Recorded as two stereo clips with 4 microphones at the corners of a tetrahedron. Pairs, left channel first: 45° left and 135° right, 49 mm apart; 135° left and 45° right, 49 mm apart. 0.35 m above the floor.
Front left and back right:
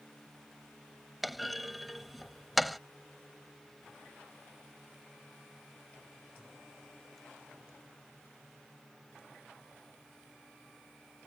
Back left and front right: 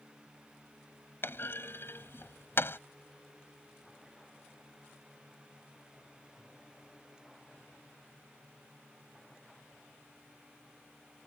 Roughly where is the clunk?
Behind left.